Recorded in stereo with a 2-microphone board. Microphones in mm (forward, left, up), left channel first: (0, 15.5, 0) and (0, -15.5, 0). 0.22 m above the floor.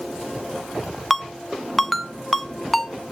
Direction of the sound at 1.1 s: 5° left (ahead or behind).